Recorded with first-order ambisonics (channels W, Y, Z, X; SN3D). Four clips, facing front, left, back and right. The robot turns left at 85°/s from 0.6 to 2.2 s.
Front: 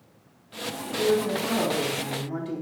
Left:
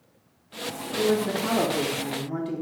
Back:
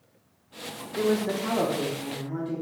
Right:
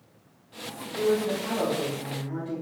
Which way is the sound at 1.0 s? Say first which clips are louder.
Left 1 dB, front 2 dB; 165° left.